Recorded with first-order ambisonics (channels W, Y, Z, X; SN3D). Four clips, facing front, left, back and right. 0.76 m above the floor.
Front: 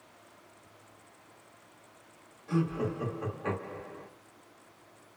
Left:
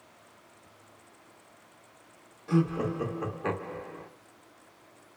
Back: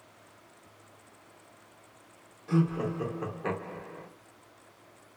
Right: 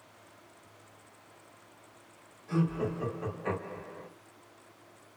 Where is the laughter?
115° left, 0.8 m.